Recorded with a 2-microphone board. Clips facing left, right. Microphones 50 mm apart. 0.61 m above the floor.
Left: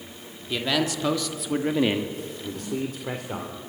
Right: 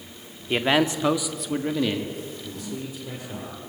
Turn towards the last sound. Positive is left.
turn(degrees=65)  # may be behind; listen again after turning